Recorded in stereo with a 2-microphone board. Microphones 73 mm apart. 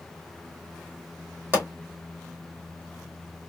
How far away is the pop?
About 2 m.